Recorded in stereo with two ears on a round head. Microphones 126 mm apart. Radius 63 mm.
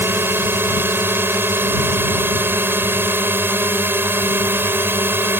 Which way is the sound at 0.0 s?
15° right (ahead or behind).